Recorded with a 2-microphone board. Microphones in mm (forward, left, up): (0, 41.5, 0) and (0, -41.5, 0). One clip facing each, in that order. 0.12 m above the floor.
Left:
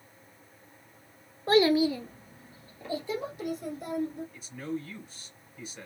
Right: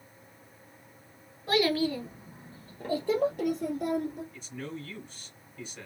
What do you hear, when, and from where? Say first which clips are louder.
1.5 s a child speaking: left 4 dB; 35° left (ahead or behind), 0.8 m; by 4.2 s 75° right (ahead or behind), 2.5 m
4.3 s a man speaking: left 4 dB; 5° left (ahead or behind), 1.6 m